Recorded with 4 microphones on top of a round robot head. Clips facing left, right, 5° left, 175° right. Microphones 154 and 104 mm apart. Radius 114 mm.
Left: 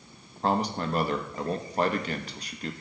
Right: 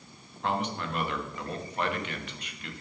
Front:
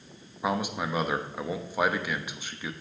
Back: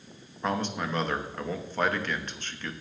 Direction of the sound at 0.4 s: 80° left.